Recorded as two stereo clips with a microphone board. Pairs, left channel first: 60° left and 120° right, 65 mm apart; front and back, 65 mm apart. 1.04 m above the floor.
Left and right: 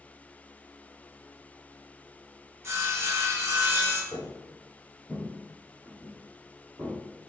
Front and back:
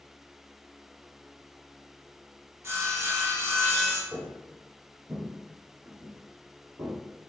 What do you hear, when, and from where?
2.6 s sawing: 150° right, 0.9 m
4.1 s footsteps: 100° left, 1.6 m; by 6.9 s 175° right, 1.9 m